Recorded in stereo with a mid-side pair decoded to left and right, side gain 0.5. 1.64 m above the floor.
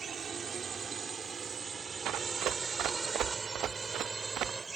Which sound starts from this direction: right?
Running footsteps, at 2.0 s.